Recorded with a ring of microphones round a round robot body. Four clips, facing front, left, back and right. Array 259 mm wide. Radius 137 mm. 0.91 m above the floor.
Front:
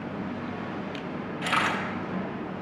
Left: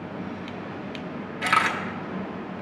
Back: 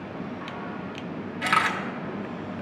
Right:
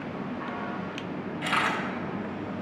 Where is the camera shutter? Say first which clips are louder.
Left 5 dB, back 3 dB; 130° left, 1.6 m.